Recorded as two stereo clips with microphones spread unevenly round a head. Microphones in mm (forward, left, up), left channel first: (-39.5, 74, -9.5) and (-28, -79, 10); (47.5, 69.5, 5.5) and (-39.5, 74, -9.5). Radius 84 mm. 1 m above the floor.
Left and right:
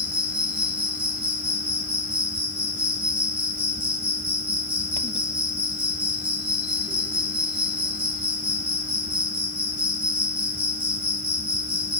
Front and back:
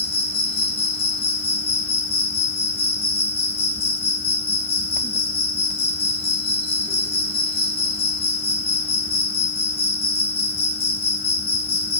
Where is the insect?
Straight ahead, 2.5 m.